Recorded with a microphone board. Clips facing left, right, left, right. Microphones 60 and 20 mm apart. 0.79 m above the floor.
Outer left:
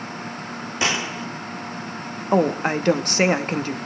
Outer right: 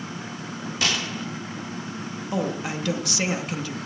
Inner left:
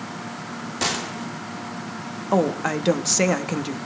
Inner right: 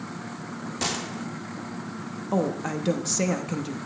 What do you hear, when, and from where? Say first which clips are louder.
0.8 s a gunshot: outer left 3 dB, inner left 4 dB; 20° left (ahead or behind), 0.6 m
2.3 s a woman speaking: outer left 9 dB, inner left 5 dB; 40° left (ahead or behind), 0.9 m